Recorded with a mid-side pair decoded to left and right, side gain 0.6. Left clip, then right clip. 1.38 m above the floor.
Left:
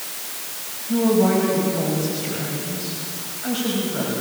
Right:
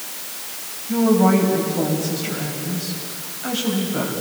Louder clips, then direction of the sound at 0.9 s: Right 1 dB; 15° right.